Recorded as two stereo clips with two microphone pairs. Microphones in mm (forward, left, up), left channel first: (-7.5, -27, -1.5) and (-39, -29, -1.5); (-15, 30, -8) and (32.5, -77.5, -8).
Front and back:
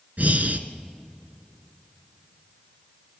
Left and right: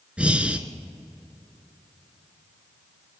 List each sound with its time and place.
0.2 s breathing: 145° right, 1.3 m